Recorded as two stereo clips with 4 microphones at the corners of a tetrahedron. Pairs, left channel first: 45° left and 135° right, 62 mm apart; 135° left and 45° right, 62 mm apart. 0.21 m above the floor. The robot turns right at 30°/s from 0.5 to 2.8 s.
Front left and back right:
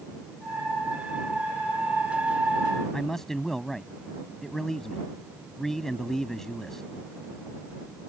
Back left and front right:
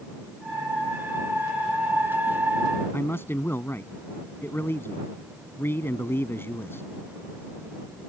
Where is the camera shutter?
I don't hear a camera shutter.